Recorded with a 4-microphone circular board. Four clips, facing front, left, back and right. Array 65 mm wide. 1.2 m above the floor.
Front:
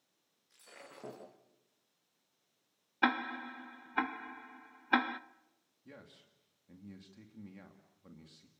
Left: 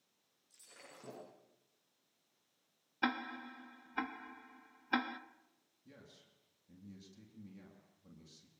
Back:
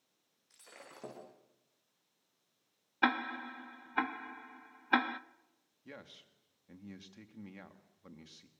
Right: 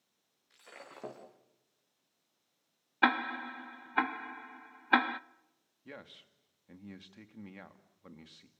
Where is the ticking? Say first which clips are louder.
Right 9 dB, even; 90° right, 0.7 m.